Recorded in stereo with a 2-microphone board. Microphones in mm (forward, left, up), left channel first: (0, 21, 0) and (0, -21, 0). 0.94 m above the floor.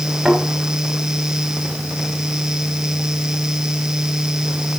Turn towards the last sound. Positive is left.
turn(degrees=5)  # may be behind; listen again after turning